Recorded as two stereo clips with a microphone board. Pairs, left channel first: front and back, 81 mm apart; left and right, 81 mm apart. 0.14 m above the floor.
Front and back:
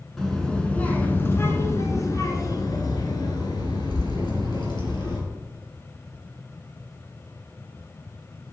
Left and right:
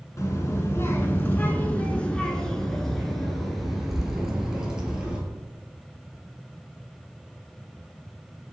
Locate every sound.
0.2 s a child speaking: 85° left, 1.4 m; by 5.2 s 10° right, 2.5 m